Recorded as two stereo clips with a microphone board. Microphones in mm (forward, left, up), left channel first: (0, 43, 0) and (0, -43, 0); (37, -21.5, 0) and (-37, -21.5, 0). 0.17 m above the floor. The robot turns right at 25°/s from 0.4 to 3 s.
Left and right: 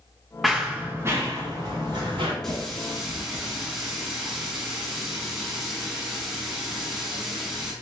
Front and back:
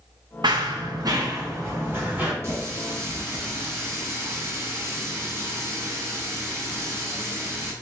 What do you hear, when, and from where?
0.4 s running footsteps: straight behind, 0.7 m; by 2.3 s 110° right, 2.5 m
2.4 s a running tap: 175° left, 0.9 m; by 7.7 s 170° right, 0.9 m